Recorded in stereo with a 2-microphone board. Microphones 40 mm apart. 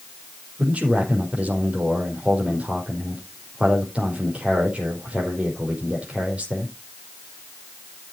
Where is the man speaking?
35° right (ahead or behind), 4.5 m.